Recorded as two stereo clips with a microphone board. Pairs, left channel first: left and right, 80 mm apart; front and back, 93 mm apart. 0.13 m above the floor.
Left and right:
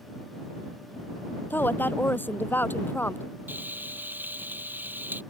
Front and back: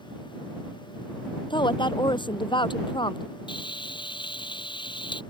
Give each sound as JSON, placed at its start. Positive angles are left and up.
{"t": 1.5, "sound": "a woman speaking", "azimuth_deg": 25}
{"t": 3.5, "sound": "frying", "azimuth_deg": -25}